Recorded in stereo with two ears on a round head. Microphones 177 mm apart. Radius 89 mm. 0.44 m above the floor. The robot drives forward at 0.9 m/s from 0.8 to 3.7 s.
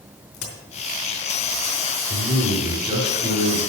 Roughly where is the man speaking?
Centre.